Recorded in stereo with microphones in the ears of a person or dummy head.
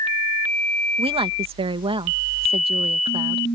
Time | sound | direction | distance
1.0 | a woman speaking | 30° right (ahead or behind) | ?